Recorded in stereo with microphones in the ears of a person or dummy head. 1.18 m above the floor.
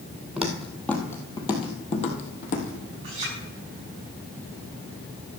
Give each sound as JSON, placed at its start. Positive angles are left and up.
{"t": 0.4, "sound": "footsteps", "side_deg": -5, "distance_m": 2.0}
{"t": 3.0, "sound": "a clink", "side_deg": -30, "distance_m": 6.0}